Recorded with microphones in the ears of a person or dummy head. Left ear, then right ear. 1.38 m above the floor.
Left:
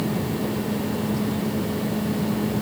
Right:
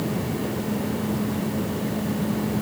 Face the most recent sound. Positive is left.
No sound to turn to.